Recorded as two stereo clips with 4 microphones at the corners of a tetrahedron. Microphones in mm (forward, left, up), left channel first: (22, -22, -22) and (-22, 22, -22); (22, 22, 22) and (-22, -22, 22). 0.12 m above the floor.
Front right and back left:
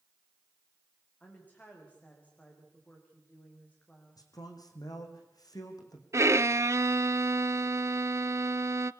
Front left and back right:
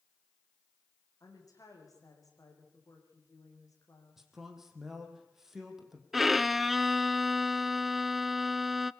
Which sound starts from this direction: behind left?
A violin, at 6.1 s.